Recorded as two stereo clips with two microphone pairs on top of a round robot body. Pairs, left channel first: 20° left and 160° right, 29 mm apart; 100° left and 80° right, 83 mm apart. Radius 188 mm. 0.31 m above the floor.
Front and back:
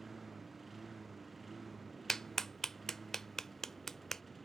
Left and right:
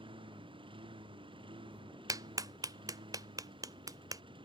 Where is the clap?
55° right.